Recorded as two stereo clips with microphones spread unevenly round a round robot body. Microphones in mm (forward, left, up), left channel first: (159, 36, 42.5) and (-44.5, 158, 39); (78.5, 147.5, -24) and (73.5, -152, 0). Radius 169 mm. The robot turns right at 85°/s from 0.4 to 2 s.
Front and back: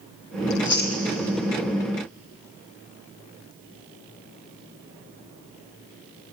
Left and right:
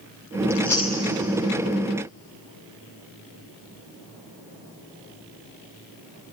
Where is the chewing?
10° right, 3 m; by 1.0 s 35° left, 3 m.